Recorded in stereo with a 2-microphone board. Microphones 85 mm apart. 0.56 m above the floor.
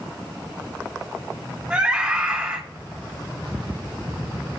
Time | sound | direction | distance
1.7 | a scream | 20° right (ahead or behind) | 3 m